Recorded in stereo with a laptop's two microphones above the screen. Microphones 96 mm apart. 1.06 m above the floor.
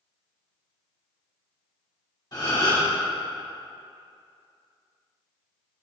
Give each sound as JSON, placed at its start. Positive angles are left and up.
{"t": 2.3, "sound": "a gasp", "side_deg": 50, "distance_m": 2.0}